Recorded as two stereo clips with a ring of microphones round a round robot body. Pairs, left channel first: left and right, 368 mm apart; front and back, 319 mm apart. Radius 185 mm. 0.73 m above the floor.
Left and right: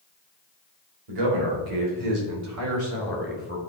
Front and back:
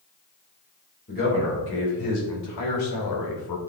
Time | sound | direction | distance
1.1 | a man speaking | 70° right | 3 m